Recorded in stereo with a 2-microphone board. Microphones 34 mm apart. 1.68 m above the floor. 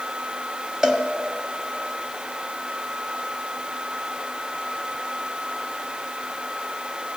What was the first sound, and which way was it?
A cowbell, 25° right (ahead or behind).